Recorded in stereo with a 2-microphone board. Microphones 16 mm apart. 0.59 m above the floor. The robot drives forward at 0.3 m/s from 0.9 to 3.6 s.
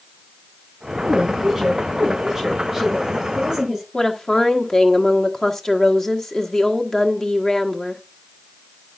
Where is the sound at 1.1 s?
10° right (ahead or behind), 6.5 m.